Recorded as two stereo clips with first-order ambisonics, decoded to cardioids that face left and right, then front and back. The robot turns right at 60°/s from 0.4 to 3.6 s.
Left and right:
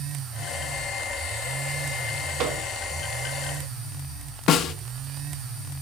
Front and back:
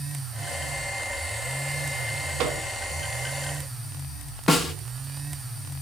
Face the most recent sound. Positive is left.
turn(degrees=70)